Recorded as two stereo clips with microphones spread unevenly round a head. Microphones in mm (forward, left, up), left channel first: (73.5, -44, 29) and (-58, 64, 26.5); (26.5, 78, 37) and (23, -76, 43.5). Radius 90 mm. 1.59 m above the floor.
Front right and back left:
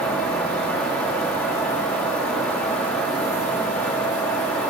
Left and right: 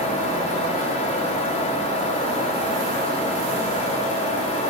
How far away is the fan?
About 6.5 m.